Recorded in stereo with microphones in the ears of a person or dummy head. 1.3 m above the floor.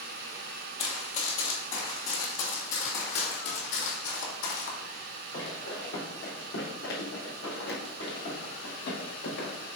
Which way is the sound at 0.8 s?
40° left (ahead or behind).